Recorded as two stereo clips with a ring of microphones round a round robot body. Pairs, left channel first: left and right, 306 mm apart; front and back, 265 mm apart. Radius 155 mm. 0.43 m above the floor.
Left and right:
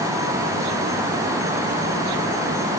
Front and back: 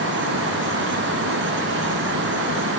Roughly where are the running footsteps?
I don't hear running footsteps.